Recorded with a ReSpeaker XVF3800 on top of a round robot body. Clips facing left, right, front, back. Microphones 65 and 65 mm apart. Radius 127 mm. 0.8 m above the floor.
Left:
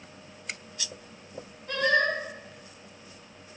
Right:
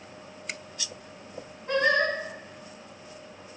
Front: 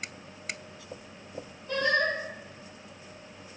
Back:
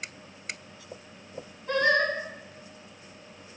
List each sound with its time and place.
1.7 s singing: 150° right, 5.5 m